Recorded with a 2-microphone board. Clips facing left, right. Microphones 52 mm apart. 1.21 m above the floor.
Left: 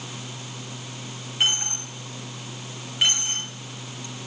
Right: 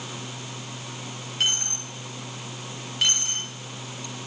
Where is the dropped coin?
15° left (ahead or behind), 3.5 m.